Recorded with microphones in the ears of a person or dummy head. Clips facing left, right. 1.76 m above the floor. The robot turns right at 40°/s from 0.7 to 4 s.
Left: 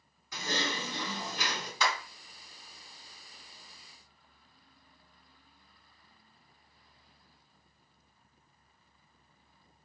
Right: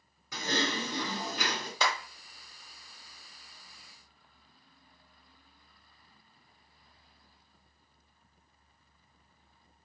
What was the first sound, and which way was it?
Typing on a keyboard, 105° right.